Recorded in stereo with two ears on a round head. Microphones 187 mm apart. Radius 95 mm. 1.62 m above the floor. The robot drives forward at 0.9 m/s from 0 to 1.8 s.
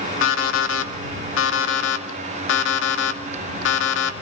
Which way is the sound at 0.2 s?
65° left (ahead or behind).